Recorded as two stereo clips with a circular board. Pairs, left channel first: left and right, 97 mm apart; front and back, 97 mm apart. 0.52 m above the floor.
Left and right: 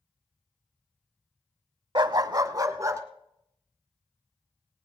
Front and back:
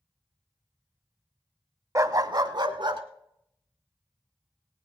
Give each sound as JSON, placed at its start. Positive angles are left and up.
{"t": 1.9, "sound": "a dog barking", "azimuth_deg": -125, "distance_m": 0.6}